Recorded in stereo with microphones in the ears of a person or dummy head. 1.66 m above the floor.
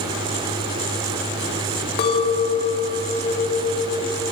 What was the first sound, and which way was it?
A clink, 25° left (ahead or behind).